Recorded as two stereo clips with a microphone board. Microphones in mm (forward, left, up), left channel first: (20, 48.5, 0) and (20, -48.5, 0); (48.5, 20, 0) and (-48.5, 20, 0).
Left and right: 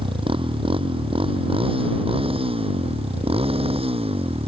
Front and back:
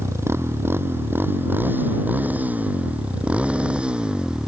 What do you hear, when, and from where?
0.0 s a motorcycle: 115° right; by 4.5 s 100° right